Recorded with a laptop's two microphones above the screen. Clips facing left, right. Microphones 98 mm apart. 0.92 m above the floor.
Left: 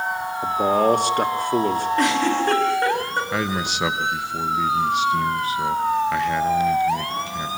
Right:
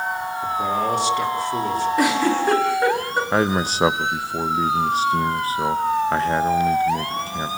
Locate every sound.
0.4 s a man speaking: 55° left (ahead or behind), 2.5 m
2.0 s a giggle: 5° right (ahead or behind), 7.5 m
3.3 s a man speaking: 35° right (ahead or behind), 0.8 m